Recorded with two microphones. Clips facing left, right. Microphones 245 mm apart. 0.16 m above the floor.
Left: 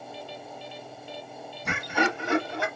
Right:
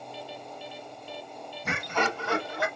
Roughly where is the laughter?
Centre.